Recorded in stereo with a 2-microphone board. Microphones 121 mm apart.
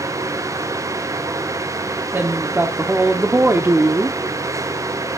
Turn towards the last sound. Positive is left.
turn(degrees=-15)  # may be behind; listen again after turning